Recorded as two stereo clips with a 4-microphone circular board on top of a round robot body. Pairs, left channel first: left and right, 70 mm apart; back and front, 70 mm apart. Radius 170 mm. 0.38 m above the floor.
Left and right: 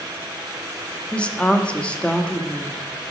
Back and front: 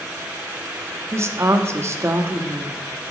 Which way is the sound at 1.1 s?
20° left.